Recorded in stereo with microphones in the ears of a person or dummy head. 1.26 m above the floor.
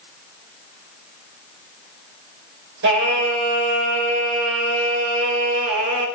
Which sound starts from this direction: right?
Singing, at 2.8 s.